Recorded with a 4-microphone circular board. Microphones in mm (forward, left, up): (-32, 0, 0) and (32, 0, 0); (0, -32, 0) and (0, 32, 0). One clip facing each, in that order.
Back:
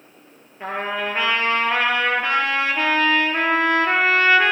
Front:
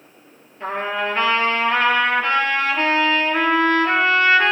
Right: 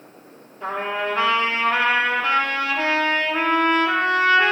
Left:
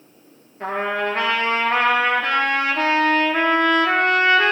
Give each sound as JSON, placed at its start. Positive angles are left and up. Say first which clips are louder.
{"t": 0.6, "sound": "a trumpet", "louder": "front 2 dB, left 2 dB", "azimuth_deg": 105, "distance_m": 4.0}